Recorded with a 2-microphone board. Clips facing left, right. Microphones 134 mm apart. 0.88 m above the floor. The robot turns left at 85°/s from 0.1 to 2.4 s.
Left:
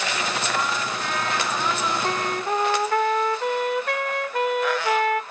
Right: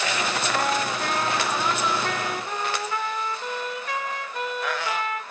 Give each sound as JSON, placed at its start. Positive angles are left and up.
{"t": 0.5, "sound": "a trumpet", "azimuth_deg": -80, "distance_m": 1.7}